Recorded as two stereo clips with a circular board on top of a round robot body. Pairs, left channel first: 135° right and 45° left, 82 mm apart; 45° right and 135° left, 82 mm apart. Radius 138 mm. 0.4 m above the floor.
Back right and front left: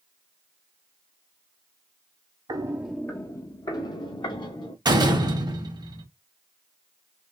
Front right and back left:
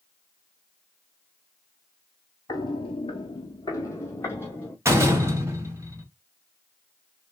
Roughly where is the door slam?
Left.